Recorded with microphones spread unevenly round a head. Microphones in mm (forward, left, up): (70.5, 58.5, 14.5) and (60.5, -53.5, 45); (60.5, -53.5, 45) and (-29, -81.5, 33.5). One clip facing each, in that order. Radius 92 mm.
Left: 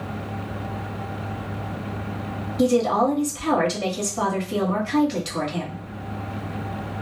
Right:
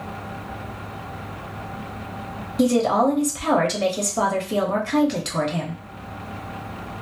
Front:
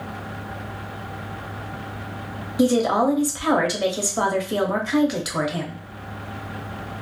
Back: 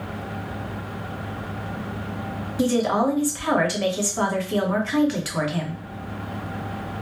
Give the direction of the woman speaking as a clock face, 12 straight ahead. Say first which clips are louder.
Right 1 dB, front 2 dB; 2 o'clock.